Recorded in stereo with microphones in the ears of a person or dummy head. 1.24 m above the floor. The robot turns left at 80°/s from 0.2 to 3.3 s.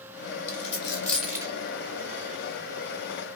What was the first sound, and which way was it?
A dropped coin, 55° left (ahead or behind).